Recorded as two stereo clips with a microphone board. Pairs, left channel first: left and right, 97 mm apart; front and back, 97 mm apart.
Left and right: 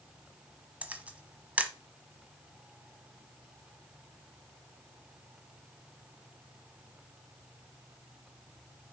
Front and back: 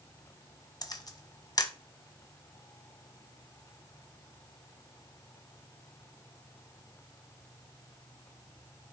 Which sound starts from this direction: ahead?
A camera shutter, at 0.8 s.